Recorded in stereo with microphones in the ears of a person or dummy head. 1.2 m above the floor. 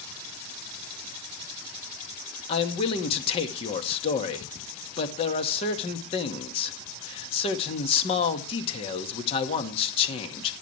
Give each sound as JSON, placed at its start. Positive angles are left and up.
{"t": 2.5, "sound": "a man speaking", "side_deg": 35, "distance_m": 2.0}